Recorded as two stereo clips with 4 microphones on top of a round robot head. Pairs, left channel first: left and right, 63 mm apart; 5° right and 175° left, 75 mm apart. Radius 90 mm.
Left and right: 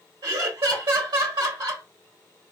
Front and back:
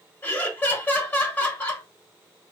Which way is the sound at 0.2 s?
75° right.